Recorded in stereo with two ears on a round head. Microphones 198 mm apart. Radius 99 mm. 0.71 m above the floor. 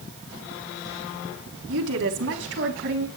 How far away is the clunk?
No clunk in this recording.